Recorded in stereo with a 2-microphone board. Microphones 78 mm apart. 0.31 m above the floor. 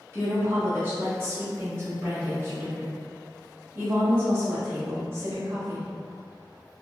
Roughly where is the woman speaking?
Right.